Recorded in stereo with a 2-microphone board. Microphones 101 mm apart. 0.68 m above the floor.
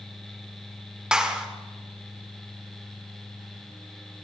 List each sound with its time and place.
1.1 s a clap: 10° right (ahead or behind), 1.5 m